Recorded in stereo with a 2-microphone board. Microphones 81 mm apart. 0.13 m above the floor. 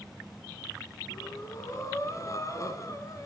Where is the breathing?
40° left (ahead or behind), 1.9 m.